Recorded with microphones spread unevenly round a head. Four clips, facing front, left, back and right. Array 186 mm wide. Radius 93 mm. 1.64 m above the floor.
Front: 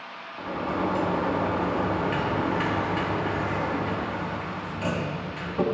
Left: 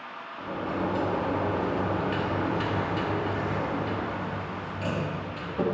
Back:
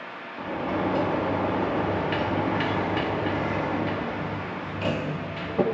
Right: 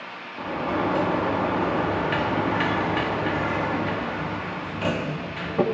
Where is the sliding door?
110° right, 1.1 m.